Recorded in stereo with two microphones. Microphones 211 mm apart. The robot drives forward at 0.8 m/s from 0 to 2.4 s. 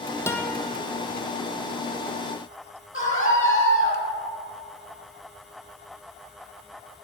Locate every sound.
0.3 s a guitar: 10° left (ahead or behind), 1.1 m
2.9 s a scream: 75° left (ahead or behind), 7 m